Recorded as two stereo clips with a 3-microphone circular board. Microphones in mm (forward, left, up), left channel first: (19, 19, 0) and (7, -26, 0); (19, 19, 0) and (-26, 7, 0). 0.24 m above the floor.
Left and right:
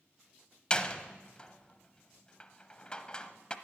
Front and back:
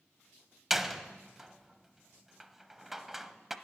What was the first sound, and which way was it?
A door slam, 120° left.